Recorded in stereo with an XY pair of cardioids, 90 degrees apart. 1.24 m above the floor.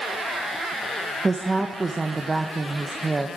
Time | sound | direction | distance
1.2 | a woman speaking | 25° right | 0.8 m